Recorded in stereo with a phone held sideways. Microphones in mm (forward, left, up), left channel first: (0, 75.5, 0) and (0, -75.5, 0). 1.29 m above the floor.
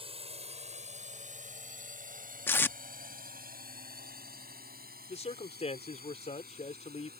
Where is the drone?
40° right (ahead or behind); by 7.2 s 80° right.